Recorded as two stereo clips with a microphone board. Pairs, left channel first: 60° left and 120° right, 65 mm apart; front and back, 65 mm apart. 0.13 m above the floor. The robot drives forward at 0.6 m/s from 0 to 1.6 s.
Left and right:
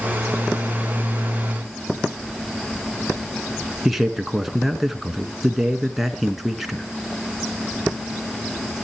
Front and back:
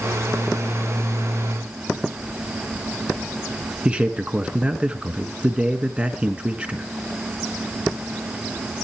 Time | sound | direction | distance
3.9 | a man speaking | 155° left | 1.3 m